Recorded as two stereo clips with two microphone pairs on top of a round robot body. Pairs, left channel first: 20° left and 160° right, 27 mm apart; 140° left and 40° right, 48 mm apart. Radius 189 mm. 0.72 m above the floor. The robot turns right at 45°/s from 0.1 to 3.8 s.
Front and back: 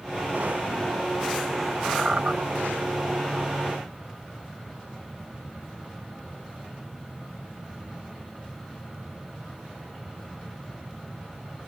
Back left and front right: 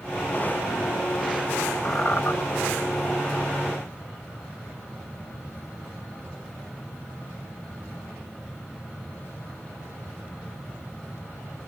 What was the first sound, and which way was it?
A squeak, 140° left.